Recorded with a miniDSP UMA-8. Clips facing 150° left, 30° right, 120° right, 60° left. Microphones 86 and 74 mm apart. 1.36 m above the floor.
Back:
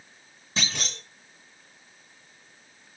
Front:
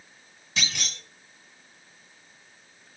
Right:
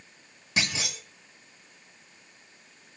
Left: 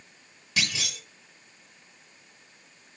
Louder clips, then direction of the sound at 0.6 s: Back 1 dB, right 1 dB; 170° right.